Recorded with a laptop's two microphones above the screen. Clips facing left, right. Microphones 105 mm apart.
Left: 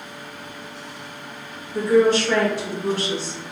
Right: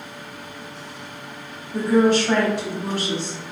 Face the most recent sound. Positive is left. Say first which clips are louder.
# left 1 dB
turn(degrees=-60)  # may be behind; listen again after turning